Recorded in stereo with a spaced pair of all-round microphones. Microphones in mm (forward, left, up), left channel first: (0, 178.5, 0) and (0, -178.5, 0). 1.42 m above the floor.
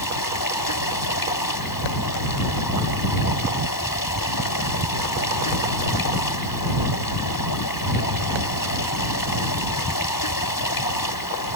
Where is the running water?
70° left (ahead or behind).